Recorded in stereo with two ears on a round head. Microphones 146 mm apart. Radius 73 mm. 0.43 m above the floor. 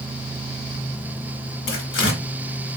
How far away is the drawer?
I don't hear a drawer.